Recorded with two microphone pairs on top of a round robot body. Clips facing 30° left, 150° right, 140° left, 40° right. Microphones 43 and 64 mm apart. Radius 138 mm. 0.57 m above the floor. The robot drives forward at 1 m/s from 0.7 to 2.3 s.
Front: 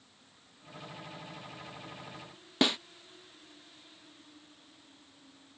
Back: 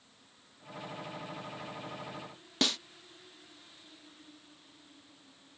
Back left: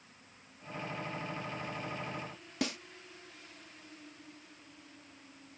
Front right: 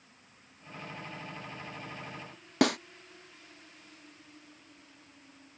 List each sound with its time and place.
2.6 s a snare drum: 40° right